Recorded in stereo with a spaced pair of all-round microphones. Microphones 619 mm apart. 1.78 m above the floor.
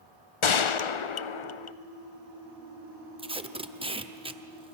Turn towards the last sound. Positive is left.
turn(degrees=-10)  # may be behind; listen again after turning